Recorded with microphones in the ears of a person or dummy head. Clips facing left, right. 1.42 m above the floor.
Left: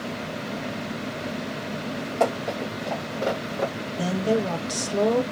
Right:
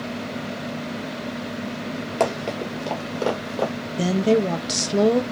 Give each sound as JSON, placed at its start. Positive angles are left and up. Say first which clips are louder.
{"t": 2.2, "sound": "running footsteps", "louder": "right 1 dB", "side_deg": -45, "distance_m": 2.0}
{"t": 4.0, "sound": "a woman speaking", "louder": "right 5 dB", "side_deg": -25, "distance_m": 0.8}